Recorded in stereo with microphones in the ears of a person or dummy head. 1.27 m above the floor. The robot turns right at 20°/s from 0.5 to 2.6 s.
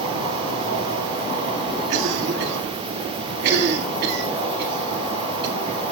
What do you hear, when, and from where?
0.0 s an insect: 30° right, 8 m; by 5.9 s 15° left, 8 m
1.9 s a cough: 65° right (ahead or behind), 2.5 m; by 5.6 s 55° right (ahead or behind), 2.5 m